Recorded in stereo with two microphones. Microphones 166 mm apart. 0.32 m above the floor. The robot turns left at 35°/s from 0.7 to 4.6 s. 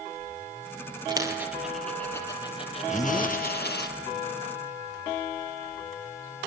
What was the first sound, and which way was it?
A dropped coin, 25° right (ahead or behind).